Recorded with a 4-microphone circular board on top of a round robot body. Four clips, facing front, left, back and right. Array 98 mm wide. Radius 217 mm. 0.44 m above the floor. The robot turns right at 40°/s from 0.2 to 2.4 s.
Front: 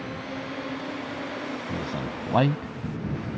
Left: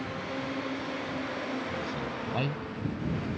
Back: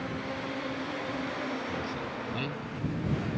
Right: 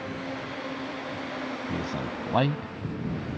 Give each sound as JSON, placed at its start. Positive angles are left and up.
{"t": 1.7, "sound": "a man speaking", "azimuth_deg": -60}